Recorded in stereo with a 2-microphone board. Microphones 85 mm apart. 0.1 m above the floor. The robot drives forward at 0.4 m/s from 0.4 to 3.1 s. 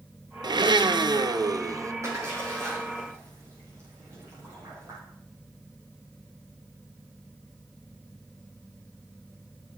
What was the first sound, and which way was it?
A blender, 60° right (ahead or behind).